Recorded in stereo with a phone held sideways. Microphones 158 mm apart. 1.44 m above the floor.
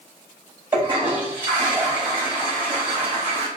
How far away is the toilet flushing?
About 2.5 m.